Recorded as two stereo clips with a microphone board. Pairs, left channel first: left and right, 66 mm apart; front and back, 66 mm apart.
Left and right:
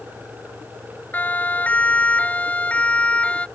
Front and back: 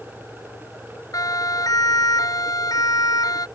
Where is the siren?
25° left; by 3.5 s 20° left.